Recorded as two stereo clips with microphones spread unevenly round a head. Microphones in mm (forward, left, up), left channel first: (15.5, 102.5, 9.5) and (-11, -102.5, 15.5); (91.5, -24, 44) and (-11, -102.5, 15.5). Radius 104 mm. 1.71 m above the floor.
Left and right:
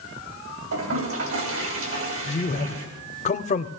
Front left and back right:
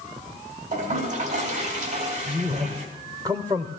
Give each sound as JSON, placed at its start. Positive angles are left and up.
{"t": 0.7, "sound": "a toilet flushing", "azimuth_deg": -115, "distance_m": 3.0}
{"t": 2.3, "sound": "a man speaking", "azimuth_deg": 140, "distance_m": 0.5}